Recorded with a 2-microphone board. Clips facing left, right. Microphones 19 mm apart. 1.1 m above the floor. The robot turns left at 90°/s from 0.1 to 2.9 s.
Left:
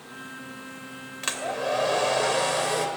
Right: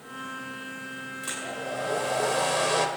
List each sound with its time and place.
1.2 s a hair dryer: 120° left, 2 m; by 2.9 s 25° right, 2 m